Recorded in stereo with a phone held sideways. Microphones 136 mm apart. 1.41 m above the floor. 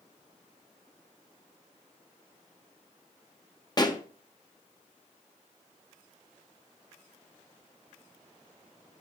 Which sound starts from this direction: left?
A pop, at 3.8 s.